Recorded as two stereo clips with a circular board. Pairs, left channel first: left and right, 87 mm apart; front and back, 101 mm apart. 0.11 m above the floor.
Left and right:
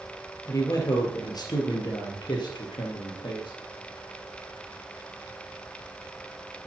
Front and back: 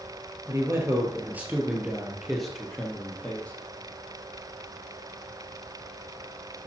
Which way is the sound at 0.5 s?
130° left.